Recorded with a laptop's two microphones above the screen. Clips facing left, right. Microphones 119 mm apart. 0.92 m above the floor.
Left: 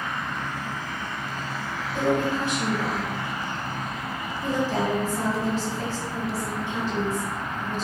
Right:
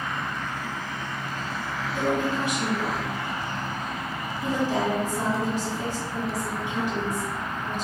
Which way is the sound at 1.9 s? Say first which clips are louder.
Left 2 dB; 15° right (ahead or behind).